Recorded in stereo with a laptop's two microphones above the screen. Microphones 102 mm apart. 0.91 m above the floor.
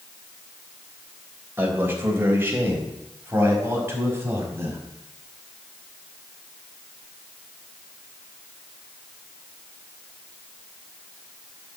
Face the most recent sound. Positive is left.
turn(degrees=-25)  # may be behind; listen again after turning